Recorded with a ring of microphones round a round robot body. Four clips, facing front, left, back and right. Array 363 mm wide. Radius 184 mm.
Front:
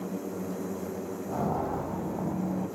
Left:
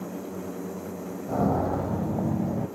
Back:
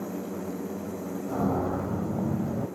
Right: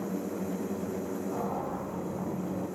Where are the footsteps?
105° left, 1.9 m; by 2.7 s 125° left, 2.5 m.